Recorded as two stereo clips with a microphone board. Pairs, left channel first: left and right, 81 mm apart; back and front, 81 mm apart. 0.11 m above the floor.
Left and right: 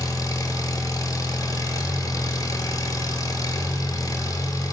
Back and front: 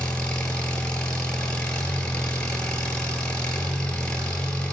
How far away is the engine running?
About 0.9 m.